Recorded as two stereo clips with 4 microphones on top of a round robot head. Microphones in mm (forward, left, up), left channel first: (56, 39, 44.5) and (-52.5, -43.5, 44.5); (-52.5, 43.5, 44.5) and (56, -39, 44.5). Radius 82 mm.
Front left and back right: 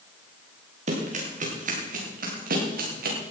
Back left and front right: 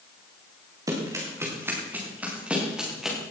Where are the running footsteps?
105° right, 5.5 m; by 3.2 s 125° right, 5.5 m.